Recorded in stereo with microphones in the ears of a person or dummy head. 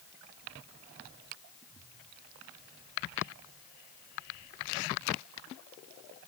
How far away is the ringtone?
I don't hear a ringtone.